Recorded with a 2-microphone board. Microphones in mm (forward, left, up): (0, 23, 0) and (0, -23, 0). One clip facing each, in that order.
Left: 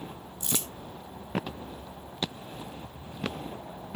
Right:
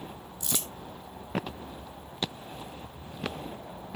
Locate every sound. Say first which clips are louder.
0.4 s crumpling: left 1 dB; 35° left (ahead or behind), 1.9 m